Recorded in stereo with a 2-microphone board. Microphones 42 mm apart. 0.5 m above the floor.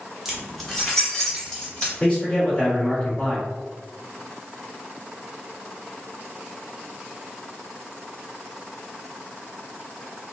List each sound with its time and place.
0.2 s keys jangling: 5° right (ahead or behind), 0.8 m; by 1.9 s 15° left (ahead or behind), 1.4 m
2.0 s a man speaking: 20° left (ahead or behind), 1.7 m